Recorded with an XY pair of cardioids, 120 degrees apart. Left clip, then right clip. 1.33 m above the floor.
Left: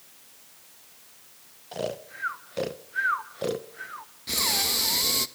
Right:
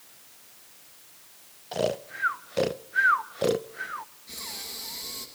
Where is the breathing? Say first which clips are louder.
Left 15 dB; 70° left, 1.3 m.